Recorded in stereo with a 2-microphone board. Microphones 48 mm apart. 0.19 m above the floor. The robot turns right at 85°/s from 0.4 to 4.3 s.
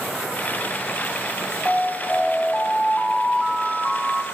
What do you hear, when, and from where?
1.6 s an alarm: 30° right, 1.0 m; by 4.2 s 170° right, 1.0 m